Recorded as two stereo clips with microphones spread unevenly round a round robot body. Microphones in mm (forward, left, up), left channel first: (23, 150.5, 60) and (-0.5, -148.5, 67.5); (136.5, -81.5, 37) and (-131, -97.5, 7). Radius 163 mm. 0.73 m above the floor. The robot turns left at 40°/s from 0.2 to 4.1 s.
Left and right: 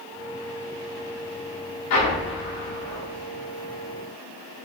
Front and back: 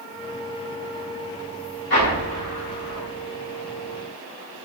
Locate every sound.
1.9 s an explosion: 50° left, 1.7 m; by 3.1 s straight ahead, 1.7 m